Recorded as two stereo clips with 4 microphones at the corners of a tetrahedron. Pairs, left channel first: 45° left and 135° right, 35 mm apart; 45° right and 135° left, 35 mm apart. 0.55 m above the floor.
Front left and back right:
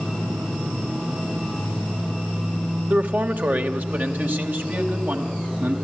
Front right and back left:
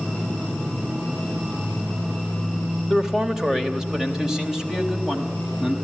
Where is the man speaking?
150° right, 2 m.